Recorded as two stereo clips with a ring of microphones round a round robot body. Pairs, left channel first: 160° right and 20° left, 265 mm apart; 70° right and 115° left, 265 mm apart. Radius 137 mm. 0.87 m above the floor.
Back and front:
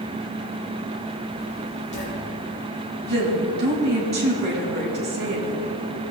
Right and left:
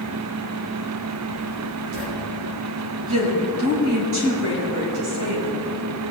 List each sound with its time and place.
1.4 s writing: 140° left, 3.5 m
3.1 s a woman speaking: 75° left, 4.5 m